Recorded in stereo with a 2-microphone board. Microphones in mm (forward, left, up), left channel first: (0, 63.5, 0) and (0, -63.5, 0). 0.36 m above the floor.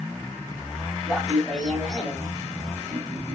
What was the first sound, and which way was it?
Laughter, 5° right (ahead or behind).